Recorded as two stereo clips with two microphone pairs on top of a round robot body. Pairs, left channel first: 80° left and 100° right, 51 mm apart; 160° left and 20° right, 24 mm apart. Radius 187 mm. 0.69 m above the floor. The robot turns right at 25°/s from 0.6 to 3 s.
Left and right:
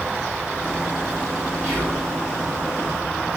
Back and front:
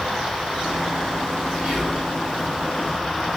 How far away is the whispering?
About 2 m.